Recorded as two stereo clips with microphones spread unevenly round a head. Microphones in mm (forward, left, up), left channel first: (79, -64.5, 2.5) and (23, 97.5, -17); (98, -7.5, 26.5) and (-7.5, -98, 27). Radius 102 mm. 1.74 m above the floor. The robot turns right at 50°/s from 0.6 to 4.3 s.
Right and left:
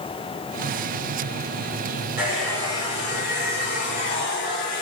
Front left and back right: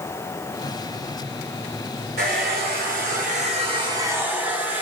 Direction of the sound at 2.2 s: 170° right.